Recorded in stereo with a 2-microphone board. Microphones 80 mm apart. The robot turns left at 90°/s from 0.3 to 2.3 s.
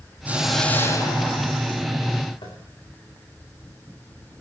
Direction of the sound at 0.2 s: 160° right.